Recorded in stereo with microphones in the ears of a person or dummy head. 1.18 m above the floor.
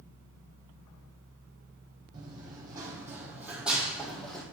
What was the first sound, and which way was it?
Running footsteps, 20° right (ahead or behind).